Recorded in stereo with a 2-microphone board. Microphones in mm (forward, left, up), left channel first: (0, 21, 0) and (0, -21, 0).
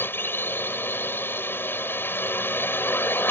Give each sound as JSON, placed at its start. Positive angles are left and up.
{"t": 0.0, "sound": "a drone", "side_deg": 60}